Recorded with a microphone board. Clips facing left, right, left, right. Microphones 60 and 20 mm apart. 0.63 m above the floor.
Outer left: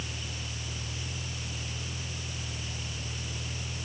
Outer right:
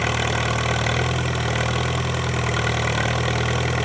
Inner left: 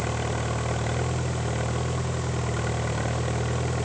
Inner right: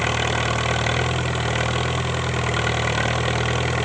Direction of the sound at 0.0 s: 80° right.